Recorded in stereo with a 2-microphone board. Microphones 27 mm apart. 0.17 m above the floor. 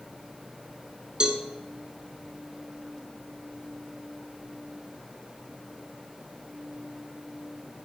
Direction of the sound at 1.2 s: 30° right (ahead or behind).